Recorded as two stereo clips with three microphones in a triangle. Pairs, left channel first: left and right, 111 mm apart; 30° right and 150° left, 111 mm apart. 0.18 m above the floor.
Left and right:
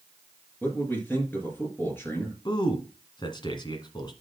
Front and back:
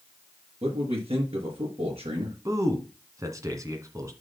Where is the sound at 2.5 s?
105° left, 1.6 m.